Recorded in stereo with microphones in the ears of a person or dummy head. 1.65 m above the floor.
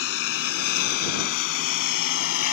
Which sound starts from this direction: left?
A lawn mower, at 0.0 s.